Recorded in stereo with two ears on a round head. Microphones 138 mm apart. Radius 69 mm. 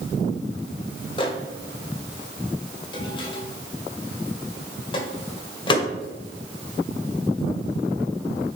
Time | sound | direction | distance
1.2 | a microwave | 30° left (ahead or behind) | 1.6 m